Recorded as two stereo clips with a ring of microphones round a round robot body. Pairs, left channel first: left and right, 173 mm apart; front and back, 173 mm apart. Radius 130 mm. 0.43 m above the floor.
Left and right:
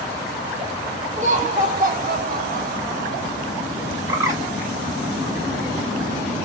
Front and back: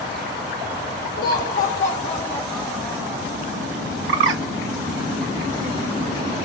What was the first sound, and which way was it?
Laughter, 45° right.